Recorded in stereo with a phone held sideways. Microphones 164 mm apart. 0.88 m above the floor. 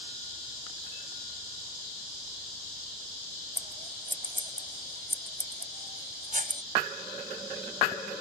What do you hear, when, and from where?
3.6 s scissors: 55° right (ahead or behind)